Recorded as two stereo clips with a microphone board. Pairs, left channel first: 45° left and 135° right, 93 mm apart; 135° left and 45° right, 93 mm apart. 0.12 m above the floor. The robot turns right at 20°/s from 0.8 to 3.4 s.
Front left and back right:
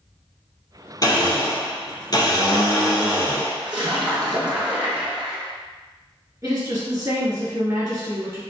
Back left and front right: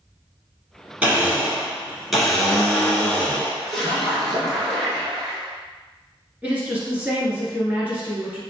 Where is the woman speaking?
110° right, 1.4 m.